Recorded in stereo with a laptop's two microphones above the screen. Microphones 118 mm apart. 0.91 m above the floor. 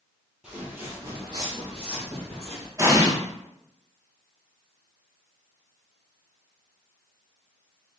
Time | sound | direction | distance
0.4 | footsteps | 10° right (ahead or behind) | 1.2 m
2.8 | an explosion | 25° right (ahead or behind) | 0.7 m